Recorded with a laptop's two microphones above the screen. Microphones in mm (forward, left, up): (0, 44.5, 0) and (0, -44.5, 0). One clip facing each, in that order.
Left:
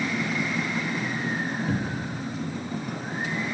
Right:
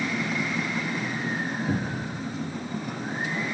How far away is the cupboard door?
About 0.5 m.